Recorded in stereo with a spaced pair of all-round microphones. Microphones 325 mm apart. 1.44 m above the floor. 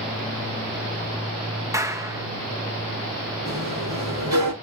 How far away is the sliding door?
About 8 m.